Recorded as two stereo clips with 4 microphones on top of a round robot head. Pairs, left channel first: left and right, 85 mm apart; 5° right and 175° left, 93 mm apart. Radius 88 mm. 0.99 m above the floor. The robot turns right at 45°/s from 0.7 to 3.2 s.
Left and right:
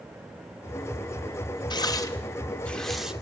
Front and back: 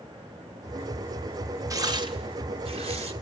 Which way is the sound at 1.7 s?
125° left.